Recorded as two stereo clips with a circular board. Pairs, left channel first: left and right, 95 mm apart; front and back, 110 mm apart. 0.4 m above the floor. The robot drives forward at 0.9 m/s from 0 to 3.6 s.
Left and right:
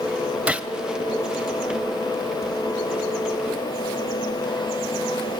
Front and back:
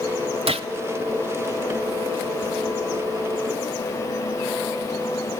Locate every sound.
0.5 s a gunshot: 165° right, 1.4 m